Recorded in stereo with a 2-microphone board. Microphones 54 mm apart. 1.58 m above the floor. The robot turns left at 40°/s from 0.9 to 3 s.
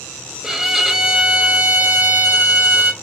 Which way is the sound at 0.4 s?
15° right.